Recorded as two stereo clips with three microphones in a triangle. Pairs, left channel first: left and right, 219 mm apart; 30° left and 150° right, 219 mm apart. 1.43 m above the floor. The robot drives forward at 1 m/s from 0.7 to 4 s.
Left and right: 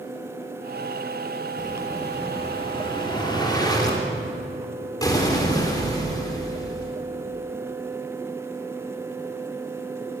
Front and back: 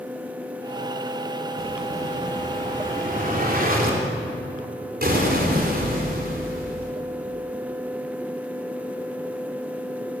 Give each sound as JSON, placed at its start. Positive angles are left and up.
{"t": 1.6, "sound": "an explosion", "azimuth_deg": 145, "distance_m": 2.5}